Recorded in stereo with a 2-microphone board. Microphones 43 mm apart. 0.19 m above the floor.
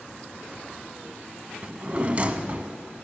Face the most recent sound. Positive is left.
turn(degrees=-30)  # may be behind; listen again after turning